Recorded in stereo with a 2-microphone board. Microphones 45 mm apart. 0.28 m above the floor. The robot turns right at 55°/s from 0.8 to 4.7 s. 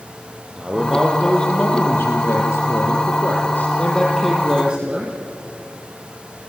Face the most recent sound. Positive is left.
turn(degrees=-160)